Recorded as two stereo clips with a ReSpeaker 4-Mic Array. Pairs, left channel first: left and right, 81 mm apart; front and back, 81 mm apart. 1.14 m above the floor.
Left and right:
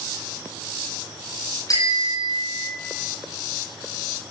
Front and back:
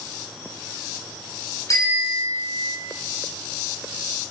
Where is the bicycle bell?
50° left, 8 m; by 2.8 s 55° left, 8 m.